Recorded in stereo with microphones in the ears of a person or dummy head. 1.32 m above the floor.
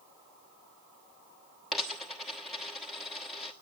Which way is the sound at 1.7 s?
Centre (ahead or behind).